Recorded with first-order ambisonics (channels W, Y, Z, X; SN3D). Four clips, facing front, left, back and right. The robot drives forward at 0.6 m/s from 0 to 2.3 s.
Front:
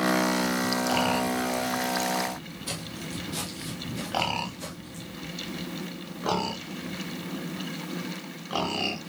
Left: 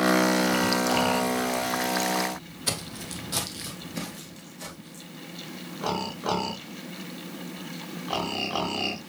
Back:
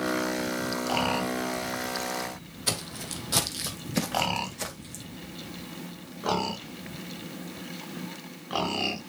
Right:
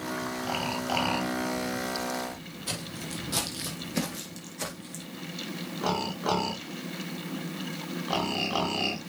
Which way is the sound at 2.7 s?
140° left.